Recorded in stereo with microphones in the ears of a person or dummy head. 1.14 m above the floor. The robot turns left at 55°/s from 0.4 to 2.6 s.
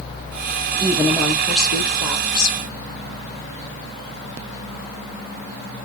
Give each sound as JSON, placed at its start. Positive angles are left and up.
{"t": 0.8, "sound": "a woman speaking", "azimuth_deg": -160, "distance_m": 2.5}